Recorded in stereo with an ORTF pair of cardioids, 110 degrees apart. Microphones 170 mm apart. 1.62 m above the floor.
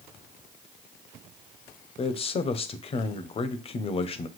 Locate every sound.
2.0 s a man speaking: 35° left, 0.6 m